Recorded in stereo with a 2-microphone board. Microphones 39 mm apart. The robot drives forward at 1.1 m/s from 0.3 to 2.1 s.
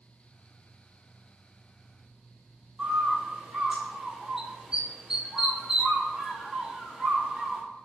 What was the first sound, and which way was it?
A bird, 15° right (ahead or behind).